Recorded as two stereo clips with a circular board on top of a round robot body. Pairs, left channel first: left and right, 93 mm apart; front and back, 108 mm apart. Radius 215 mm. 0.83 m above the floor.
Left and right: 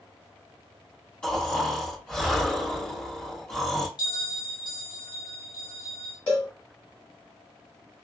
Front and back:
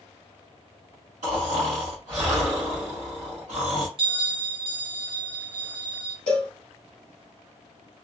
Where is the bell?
140° left, 1.4 m.